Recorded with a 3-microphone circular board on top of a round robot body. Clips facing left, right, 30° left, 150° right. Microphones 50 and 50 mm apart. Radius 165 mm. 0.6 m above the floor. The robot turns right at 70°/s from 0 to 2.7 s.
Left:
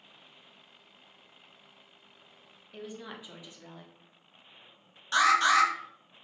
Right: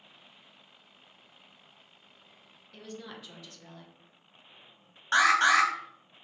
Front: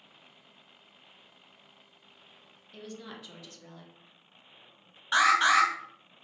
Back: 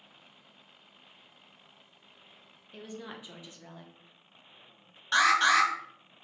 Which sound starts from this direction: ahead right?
An alarm, at 5.1 s.